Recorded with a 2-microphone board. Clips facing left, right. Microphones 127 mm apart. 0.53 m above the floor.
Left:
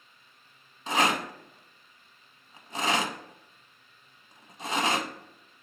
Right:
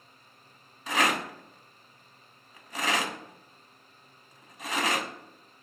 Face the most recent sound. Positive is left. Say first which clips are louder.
# left 1 dB
turn(degrees=30)  # may be behind; listen again after turning